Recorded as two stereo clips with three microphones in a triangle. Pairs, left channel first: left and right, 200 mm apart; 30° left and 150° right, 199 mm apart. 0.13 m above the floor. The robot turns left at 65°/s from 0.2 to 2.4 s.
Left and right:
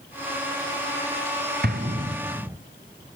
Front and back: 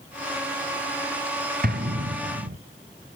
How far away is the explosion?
About 1.0 m.